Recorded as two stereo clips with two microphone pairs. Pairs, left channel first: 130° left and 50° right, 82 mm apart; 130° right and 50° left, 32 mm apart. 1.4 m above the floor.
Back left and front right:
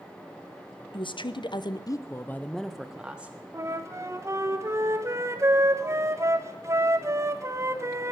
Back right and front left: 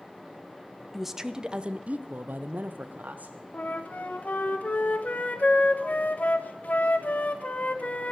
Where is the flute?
100° right, 1.2 m.